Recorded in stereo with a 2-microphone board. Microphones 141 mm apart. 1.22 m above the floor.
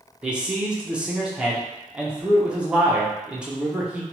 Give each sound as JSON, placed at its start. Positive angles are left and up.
{"t": 0.2, "sound": "a man speaking", "side_deg": -10, "distance_m": 0.6}